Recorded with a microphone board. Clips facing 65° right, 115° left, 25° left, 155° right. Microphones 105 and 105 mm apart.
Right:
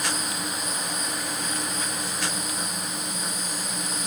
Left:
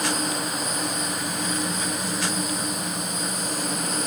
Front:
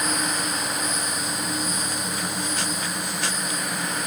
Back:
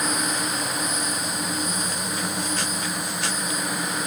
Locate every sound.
Only background noise.